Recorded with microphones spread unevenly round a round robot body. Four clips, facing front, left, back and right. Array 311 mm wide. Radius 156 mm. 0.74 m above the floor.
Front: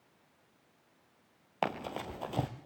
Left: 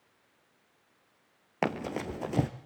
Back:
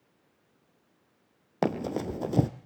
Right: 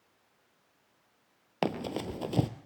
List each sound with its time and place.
1.6 s running footsteps: straight behind, 0.9 m